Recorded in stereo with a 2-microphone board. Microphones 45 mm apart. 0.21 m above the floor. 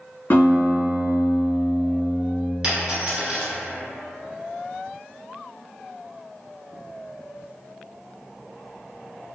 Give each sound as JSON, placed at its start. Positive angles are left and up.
{"t": 0.3, "sound": "a guitar", "side_deg": 55, "distance_m": 1.2}
{"t": 2.6, "sound": "a dropped coin", "side_deg": -20, "distance_m": 1.2}